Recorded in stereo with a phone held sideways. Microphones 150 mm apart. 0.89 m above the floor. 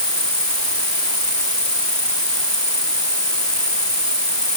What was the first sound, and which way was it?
An insect, 25° left (ahead or behind).